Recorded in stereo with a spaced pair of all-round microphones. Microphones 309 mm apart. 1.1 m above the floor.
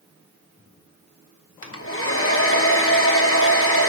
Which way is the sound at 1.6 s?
45° left (ahead or behind).